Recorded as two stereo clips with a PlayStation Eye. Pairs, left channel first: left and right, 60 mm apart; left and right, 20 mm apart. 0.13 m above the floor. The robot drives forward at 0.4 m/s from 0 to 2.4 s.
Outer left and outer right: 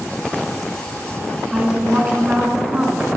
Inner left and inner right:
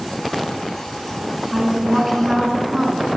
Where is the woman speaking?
20° right (ahead or behind), 1.1 m.